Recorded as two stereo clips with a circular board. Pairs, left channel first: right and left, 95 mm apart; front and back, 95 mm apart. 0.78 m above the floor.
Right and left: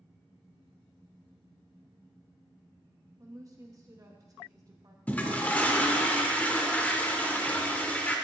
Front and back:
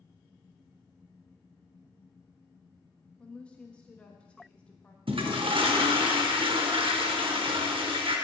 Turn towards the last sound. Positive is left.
turn(degrees=-165)